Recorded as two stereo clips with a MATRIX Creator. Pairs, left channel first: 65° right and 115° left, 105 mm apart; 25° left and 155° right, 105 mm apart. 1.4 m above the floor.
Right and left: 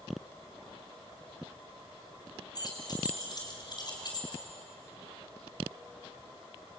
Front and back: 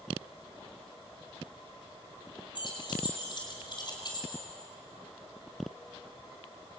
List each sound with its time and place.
2.5 s keys jangling: 20° right, 5 m; by 4.5 s 25° right, 4 m